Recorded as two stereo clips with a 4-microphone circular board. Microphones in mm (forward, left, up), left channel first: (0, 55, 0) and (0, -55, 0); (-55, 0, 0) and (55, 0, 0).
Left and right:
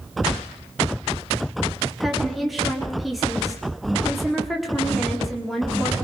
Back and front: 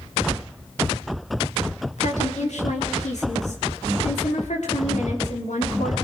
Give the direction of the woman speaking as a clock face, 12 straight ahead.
6 o'clock.